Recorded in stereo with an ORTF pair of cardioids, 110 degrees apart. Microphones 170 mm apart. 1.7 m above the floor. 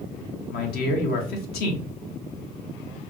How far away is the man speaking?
About 1.4 m.